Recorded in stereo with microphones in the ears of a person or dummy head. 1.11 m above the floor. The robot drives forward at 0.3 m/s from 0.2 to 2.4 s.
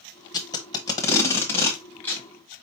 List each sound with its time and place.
0.3 s tape being pulled: 20° left (ahead or behind), 0.7 m; by 2.3 s 15° left (ahead or behind), 1.2 m